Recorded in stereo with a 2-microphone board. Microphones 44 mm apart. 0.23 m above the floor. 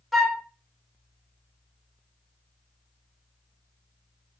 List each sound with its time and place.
0.1 s a flute: centre (ahead or behind), 0.7 m